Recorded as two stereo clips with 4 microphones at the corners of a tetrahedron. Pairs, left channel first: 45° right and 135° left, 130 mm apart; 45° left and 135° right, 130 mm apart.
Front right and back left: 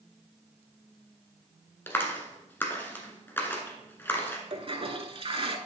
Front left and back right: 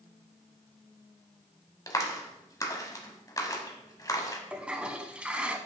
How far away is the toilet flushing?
About 0.6 m.